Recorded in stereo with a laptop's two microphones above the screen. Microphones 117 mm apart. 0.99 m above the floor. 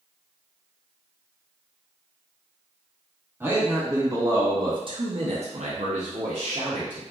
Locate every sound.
3.4 s a man speaking: 20° right (ahead or behind), 1.4 m; by 7.0 s 45° right (ahead or behind), 1.0 m